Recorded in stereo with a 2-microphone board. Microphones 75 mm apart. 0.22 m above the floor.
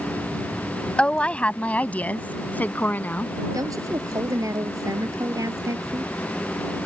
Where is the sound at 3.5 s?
50° right (ahead or behind).